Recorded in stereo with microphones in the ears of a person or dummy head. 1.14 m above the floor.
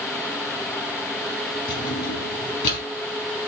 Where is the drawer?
65° left (ahead or behind), 4.5 m.